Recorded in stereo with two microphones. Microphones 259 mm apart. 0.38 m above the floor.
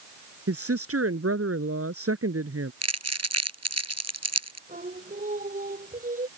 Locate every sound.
0.5 s a woman speaking: 60° right (ahead or behind)
2.8 s crumpling: 75° right (ahead or behind)
4.7 s singing: 30° right (ahead or behind)